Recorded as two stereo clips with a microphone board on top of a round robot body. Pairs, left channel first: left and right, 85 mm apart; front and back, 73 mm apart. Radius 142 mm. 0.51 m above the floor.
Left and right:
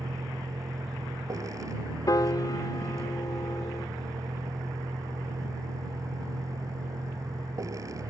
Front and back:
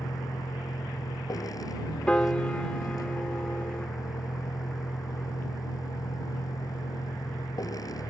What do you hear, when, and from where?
0.0 s a vehicle: 35° right
2.1 s a piano: 75° left